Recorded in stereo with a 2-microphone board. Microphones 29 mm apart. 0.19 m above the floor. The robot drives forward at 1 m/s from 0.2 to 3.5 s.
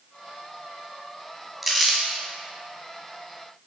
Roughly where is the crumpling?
Centre.